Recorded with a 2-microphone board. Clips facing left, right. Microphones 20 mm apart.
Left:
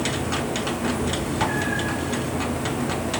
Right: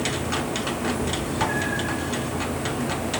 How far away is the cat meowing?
About 1.7 m.